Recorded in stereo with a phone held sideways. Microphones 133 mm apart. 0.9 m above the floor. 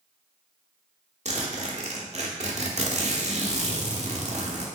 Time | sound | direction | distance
1.2 | a zipper | 60° right (ahead or behind) | 0.8 m